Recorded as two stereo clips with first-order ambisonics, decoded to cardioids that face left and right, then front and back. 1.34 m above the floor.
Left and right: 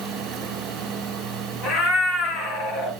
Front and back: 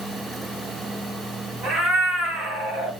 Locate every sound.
1.6 s a cat meowing: 105° left, 2 m